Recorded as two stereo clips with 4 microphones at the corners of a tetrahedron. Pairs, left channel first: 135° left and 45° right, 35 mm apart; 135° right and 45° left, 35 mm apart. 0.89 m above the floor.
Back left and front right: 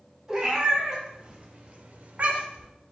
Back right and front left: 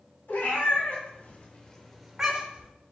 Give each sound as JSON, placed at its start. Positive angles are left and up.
{"t": 0.3, "sound": "a cat meowing", "azimuth_deg": -120, "distance_m": 1.7}